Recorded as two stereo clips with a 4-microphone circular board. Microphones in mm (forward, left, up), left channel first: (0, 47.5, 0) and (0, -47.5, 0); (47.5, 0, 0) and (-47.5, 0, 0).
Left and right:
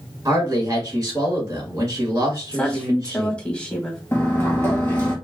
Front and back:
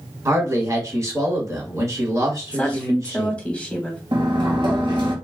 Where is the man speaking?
140° right, 1.5 m.